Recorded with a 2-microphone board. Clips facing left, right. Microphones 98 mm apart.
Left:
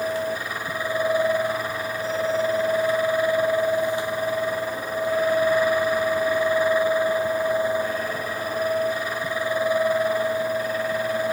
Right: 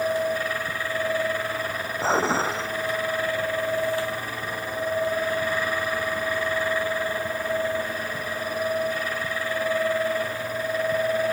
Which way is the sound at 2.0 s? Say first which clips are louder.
Right 1 dB; 75° right (ahead or behind).